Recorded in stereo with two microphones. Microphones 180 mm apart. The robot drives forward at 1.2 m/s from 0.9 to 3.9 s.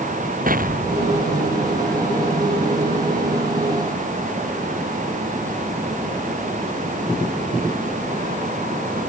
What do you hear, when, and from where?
0.5 s an explosion: 50° right (ahead or behind); by 2.0 s 55° right (ahead or behind)